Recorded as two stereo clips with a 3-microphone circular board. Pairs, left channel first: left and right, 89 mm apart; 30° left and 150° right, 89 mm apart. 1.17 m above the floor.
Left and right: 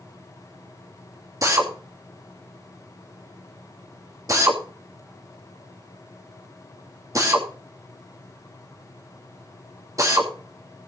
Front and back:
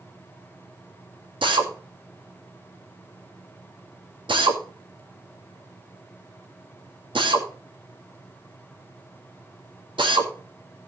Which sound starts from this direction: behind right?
A drill, at 1.4 s.